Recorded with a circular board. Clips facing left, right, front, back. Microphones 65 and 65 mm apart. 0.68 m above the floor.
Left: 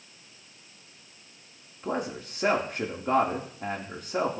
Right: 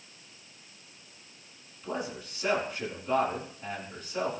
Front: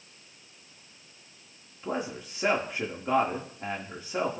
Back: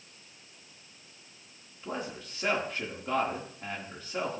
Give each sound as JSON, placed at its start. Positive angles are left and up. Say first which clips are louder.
{"t": 1.8, "sound": "a man speaking", "louder": "left 4 dB, front 4 dB", "azimuth_deg": 70, "distance_m": 1.4}